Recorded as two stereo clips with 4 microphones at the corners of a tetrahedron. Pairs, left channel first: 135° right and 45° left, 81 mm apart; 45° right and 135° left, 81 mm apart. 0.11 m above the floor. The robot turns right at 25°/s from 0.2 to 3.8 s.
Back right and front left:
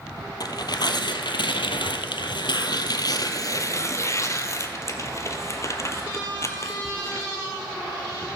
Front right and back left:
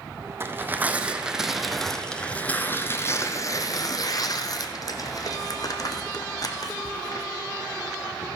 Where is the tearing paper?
170° right, 0.7 m; by 7.3 s 85° right, 0.7 m.